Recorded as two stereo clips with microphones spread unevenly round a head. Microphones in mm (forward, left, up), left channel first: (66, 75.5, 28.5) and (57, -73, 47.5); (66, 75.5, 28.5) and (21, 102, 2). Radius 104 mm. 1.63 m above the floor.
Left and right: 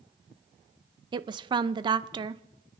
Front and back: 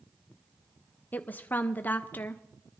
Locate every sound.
1.1 s a woman speaking: 45° right, 0.6 m